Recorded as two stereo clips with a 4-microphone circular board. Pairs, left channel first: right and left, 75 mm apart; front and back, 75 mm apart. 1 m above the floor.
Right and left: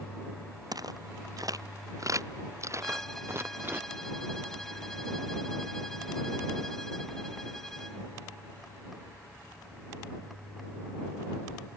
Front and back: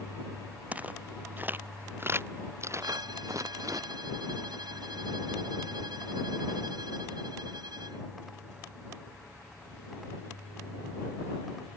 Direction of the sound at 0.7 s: 115° left.